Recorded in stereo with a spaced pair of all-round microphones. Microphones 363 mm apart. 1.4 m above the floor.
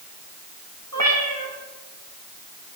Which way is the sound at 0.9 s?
45° right (ahead or behind).